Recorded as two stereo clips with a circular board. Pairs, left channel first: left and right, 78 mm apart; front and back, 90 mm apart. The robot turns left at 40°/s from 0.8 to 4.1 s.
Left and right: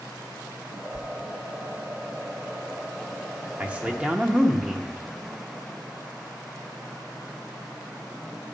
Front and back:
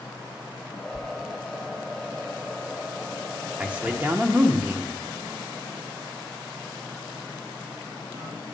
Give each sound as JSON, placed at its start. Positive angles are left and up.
{"t": 0.9, "sound": "a sliding door", "azimuth_deg": 100, "distance_m": 0.9}
{"t": 3.6, "sound": "a man speaking", "azimuth_deg": -130, "distance_m": 0.8}